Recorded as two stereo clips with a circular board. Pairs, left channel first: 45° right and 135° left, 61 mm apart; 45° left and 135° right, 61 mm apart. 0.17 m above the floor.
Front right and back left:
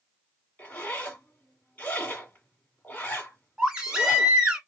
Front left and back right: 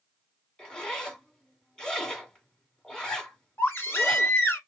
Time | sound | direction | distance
0.6 | a zipper | 20° right | 1.6 m
3.6 | a baby crying | 65° left | 1.3 m